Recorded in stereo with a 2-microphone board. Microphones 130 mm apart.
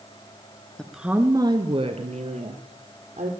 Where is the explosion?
No explosion in this recording.